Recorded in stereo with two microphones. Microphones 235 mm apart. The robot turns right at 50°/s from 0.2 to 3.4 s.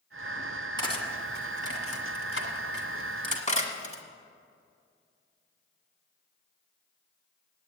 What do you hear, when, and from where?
0.8 s cutlery clinking: 15° left (ahead or behind), 1.7 m; by 4.0 s 30° left (ahead or behind), 1.7 m